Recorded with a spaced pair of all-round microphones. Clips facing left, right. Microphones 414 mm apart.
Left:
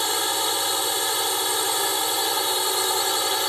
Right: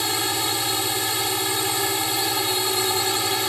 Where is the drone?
45° right (ahead or behind).